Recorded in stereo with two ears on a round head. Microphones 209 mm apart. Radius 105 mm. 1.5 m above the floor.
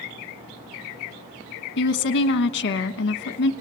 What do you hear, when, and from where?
1.8 s a woman speaking: 55° left (ahead or behind), 1.3 m